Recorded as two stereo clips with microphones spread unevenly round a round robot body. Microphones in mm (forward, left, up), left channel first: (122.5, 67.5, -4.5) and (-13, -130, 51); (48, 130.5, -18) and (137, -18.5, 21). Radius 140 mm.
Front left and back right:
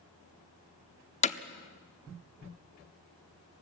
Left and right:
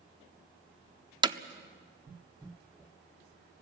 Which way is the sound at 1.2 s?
15° left.